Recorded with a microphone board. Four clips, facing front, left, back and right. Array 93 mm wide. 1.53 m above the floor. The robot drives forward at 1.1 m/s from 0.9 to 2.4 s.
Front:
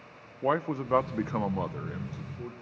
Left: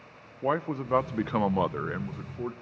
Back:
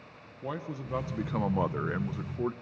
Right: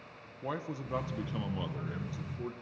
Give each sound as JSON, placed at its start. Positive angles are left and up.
{"t": 0.4, "sound": "a man speaking", "azimuth_deg": 40, "distance_m": 0.9}